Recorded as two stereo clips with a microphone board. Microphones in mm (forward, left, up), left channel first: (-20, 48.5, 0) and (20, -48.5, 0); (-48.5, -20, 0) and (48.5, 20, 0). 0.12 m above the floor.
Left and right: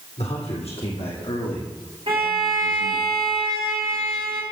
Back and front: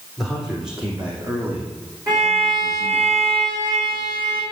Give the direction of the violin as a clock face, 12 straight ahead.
1 o'clock.